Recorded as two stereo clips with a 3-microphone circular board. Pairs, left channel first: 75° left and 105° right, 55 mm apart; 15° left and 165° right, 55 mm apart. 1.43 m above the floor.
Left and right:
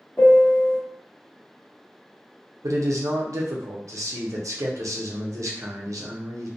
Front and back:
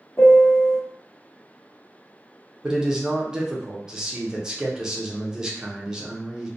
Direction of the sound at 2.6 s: 90° right.